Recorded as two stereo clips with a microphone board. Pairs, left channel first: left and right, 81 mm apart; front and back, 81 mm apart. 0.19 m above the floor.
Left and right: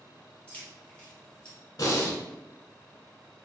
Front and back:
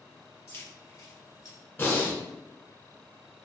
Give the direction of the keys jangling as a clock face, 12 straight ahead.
11 o'clock.